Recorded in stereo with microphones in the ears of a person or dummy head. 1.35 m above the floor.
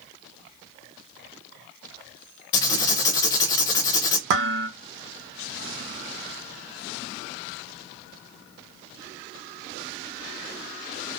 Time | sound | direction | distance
2.5 | writing | 20° left (ahead or behind) | 0.6 m
4.3 | dishes clattering | 60° right (ahead or behind) | 0.9 m